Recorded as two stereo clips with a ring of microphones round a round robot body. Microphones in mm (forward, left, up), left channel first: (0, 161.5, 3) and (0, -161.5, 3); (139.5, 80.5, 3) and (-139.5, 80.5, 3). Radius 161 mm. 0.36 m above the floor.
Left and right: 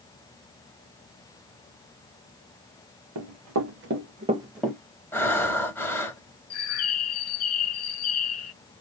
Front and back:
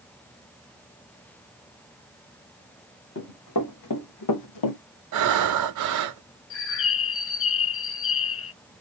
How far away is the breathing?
About 0.9 m.